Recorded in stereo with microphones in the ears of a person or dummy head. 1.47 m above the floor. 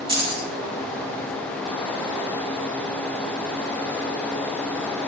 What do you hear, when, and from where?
0.1 s keys jangling: 25° right (ahead or behind), 0.9 m